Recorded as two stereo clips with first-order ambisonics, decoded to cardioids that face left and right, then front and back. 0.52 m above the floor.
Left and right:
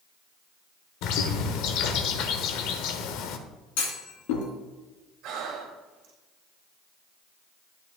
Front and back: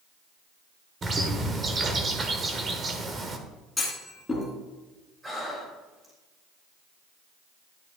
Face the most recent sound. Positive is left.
turn(degrees=-105)